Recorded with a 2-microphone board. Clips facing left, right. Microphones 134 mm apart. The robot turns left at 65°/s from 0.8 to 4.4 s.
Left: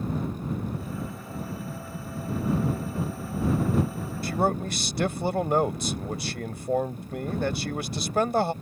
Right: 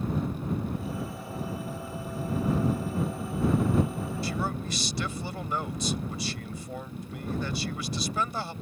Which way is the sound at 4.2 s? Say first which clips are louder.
Left 10 dB; 55° left (ahead or behind).